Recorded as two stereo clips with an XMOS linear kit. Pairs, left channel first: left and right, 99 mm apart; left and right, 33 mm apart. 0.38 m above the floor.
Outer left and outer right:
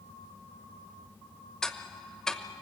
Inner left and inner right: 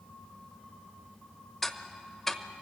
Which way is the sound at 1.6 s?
5° left (ahead or behind).